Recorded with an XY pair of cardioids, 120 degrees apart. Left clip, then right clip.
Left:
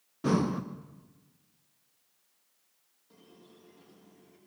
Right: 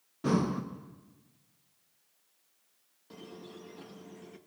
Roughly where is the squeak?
Ahead right.